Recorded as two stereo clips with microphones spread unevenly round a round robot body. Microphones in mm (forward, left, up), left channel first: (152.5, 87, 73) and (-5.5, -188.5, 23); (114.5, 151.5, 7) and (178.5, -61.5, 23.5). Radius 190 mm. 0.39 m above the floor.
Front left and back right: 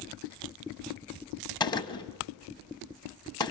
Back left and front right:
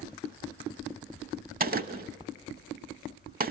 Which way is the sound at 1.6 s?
20° right.